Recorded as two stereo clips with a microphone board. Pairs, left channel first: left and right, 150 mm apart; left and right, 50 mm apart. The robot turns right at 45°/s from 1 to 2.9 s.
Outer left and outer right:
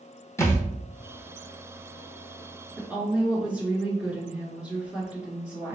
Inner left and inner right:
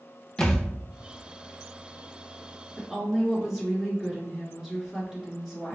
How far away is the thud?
About 1.0 m.